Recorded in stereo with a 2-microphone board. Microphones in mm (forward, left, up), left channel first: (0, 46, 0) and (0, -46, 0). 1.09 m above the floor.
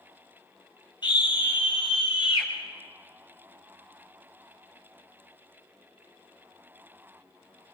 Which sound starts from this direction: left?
A scream, at 1.0 s.